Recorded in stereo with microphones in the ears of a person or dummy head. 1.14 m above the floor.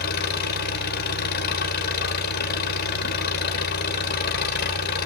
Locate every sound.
0.0 s an engine running: 55° left (ahead or behind), 2.5 m